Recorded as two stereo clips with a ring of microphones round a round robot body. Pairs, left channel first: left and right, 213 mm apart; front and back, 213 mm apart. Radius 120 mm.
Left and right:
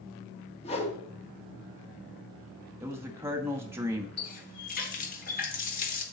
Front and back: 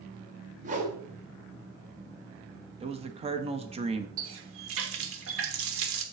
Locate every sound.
0.6 s a whoosh: 140° left, 1.3 m
2.8 s a man speaking: 155° right, 1.0 m
4.2 s a running tap: 145° left, 1.1 m